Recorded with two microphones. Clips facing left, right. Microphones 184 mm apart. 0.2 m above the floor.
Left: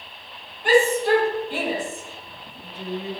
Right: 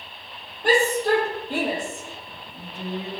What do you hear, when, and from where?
0.6 s a shout: 40° right (ahead or behind), 7 m; by 3.1 s 45° right (ahead or behind), 8.5 m